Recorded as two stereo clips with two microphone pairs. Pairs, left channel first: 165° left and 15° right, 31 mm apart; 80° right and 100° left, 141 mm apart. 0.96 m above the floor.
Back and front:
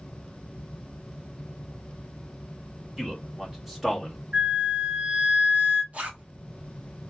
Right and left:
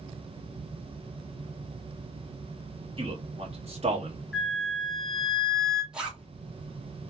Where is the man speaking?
50° left, 1.6 m; by 4.2 s 75° left, 1.0 m.